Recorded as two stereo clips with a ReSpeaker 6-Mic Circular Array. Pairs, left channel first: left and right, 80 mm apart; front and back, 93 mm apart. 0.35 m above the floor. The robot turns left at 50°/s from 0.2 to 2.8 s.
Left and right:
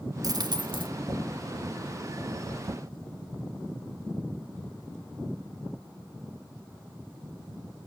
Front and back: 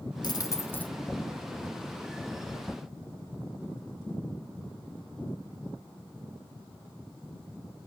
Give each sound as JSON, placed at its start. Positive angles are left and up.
{"t": 0.2, "sound": "a dropped coin", "azimuth_deg": -45, "distance_m": 0.9}